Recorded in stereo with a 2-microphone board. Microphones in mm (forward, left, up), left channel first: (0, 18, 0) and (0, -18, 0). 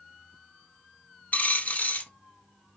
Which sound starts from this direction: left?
A dropped coin, at 1.3 s.